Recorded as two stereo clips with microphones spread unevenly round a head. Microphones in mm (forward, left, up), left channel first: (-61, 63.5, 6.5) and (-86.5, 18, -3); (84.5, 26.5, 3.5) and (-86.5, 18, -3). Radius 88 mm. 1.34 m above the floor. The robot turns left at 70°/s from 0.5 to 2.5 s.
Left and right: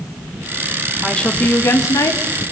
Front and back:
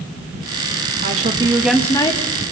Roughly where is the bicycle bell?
I don't hear a bicycle bell.